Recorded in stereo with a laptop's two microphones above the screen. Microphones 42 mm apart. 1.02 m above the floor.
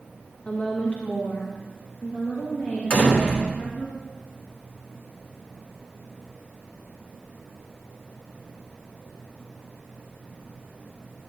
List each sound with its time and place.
0.5 s a woman speaking: 25° left (ahead or behind), 0.6 m; by 3.9 s 80° left, 2 m
2.9 s a door slam: 55° left (ahead or behind), 2.5 m